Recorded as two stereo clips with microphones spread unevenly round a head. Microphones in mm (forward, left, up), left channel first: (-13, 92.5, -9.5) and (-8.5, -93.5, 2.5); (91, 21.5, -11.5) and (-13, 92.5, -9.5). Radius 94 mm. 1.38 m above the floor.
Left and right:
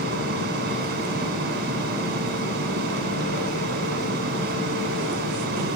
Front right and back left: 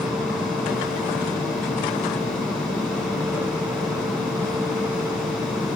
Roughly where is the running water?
Behind right.